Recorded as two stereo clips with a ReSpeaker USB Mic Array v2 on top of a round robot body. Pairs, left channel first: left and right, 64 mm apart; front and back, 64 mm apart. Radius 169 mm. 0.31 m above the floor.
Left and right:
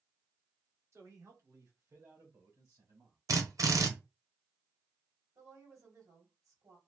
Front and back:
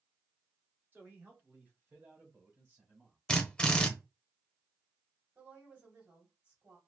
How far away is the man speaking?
About 1.9 m.